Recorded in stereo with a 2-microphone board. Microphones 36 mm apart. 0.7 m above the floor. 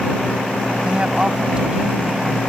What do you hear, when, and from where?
0.8 s a woman speaking: 30° right (ahead or behind)